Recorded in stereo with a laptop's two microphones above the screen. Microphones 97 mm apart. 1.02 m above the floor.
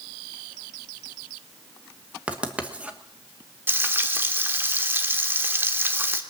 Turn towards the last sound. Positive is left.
turn(degrees=-20)  # may be behind; listen again after turning